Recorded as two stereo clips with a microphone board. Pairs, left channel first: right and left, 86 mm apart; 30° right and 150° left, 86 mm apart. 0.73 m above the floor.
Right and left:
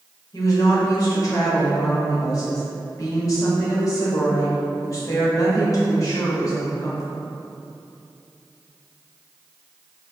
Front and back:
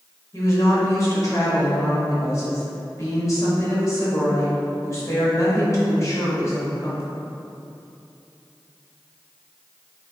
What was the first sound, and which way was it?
A woman speaking, 65° right.